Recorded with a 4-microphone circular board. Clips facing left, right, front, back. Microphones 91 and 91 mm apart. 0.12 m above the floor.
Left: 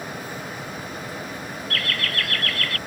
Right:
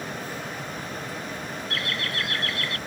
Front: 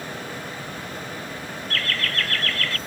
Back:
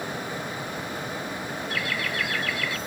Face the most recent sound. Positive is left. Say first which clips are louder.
# left 4 dB, front 3 dB
turn(degrees=-120)